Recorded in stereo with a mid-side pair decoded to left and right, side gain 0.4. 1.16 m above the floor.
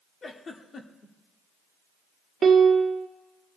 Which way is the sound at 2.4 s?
50° right.